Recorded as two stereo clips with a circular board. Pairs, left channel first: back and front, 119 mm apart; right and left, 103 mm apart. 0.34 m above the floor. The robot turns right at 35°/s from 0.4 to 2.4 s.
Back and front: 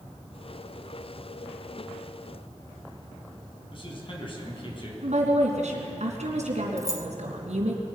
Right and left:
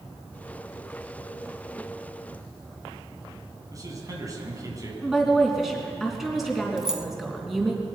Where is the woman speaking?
Straight ahead, 3.5 m.